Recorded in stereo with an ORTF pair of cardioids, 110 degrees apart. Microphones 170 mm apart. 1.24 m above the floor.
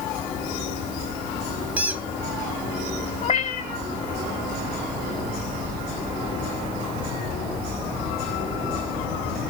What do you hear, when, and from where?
1.8 s a squeak: 10° right, 0.9 m
3.2 s a cat meowing: 45° left, 1.7 m